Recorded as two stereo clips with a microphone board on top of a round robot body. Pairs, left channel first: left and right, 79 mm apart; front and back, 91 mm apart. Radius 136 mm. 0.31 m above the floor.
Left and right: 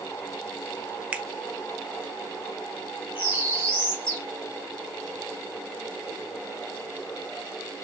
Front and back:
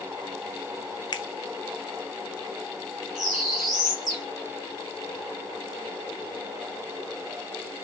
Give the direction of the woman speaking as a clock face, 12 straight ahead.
I don't hear a woman speaking.